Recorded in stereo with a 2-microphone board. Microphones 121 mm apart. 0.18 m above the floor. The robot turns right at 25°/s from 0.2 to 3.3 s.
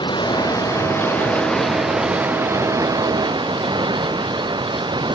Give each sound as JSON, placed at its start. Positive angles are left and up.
{"t": 0.0, "sound": "running water", "azimuth_deg": 140}